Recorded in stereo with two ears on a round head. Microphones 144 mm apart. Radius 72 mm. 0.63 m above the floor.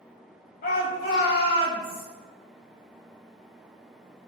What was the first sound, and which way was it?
A shout, 60° left (ahead or behind).